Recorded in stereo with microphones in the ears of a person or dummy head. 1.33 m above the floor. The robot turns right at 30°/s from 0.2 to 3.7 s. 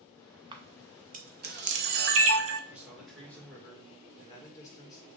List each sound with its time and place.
0.5 s a camera shutter: 25° right (ahead or behind), 0.7 m; by 2.6 s 65° right (ahead or behind), 0.7 m
2.7 s a man speaking: 10° right, 1.8 m; by 5.1 s 20° left, 1.8 m